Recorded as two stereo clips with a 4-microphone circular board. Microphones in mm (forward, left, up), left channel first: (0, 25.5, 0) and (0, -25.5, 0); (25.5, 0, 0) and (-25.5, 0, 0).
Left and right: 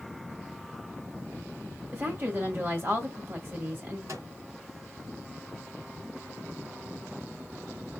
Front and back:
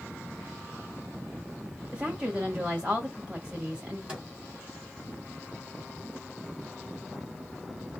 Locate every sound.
1.9 s a woman speaking: 120° right, 1.8 m
4.1 s a microwave: 110° right, 4 m